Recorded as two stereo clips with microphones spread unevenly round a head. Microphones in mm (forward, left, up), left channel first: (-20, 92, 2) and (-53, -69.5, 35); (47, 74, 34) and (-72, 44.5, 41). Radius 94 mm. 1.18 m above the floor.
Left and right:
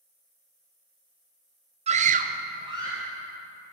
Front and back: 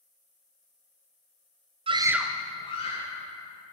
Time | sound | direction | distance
1.9 | a scream | 150° right | 0.8 m